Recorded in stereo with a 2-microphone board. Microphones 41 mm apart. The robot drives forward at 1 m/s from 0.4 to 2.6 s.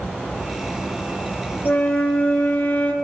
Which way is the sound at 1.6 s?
60° left (ahead or behind).